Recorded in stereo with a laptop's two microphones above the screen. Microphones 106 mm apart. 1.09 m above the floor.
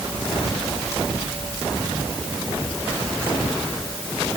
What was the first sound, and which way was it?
Only background noise.